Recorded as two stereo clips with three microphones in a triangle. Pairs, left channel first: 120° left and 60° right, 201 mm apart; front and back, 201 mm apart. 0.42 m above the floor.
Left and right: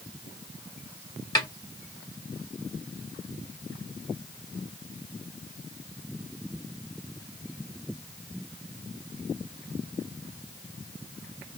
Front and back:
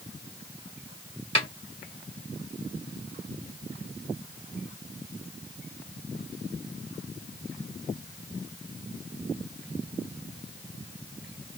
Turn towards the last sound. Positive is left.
turn(degrees=55)